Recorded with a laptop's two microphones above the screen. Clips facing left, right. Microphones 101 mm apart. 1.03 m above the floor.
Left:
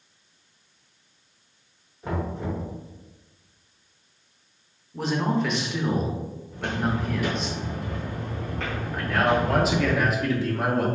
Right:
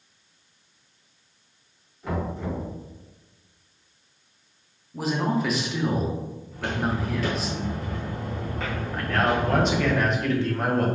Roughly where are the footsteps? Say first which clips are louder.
Even; left.